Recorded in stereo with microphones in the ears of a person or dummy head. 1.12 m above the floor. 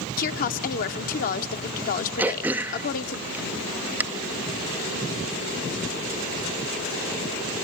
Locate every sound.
0.2 s a woman speaking: 40° left (ahead or behind), 0.8 m
2.2 s throat clearing: 10° right (ahead or behind), 0.6 m